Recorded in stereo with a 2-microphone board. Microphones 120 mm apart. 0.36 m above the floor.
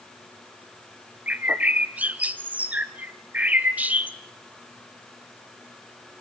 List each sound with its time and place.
1.3 s a bird: 10° right (ahead or behind), 0.7 m